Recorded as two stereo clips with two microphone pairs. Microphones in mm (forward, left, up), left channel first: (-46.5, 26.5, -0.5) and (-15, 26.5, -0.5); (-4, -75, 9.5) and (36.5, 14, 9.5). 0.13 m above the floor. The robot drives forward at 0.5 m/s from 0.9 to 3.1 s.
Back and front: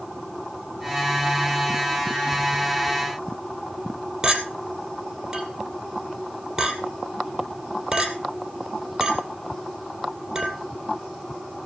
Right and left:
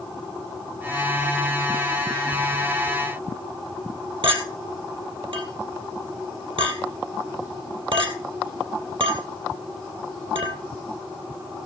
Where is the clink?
70° left, 2.5 m.